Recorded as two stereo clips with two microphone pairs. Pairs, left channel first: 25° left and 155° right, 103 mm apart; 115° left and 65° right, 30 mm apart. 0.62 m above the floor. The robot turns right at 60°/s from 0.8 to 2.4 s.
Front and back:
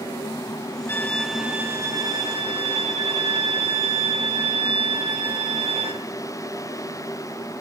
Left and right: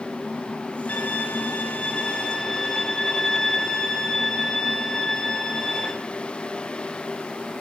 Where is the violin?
90° left, 2.5 m; by 5.9 s 175° right, 2.5 m.